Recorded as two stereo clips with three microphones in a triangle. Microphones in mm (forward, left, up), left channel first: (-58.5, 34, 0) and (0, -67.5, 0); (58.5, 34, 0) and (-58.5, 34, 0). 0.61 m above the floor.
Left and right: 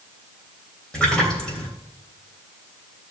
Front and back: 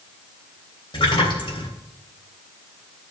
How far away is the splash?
About 3 m.